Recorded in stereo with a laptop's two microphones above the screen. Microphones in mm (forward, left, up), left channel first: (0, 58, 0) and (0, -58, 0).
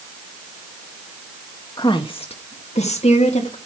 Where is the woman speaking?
35° left (ahead or behind), 1.2 m; by 3.6 s 65° left (ahead or behind), 2 m.